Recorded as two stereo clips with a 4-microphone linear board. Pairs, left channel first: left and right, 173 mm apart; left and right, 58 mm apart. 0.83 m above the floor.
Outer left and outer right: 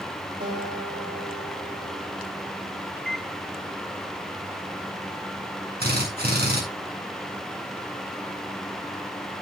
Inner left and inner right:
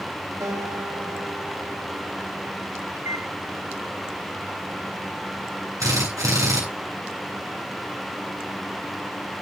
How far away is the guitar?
About 4.5 m.